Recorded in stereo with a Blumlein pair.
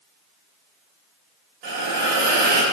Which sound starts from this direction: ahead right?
A hiss, at 1.6 s.